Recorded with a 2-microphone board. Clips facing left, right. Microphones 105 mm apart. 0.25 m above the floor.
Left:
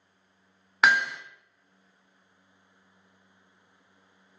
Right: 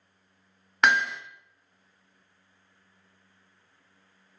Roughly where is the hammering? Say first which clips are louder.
Even; centre.